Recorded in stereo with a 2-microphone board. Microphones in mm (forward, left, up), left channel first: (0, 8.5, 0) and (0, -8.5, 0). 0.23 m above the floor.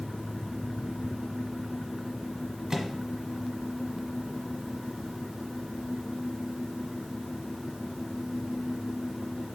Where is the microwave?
30° right (ahead or behind), 1.2 m.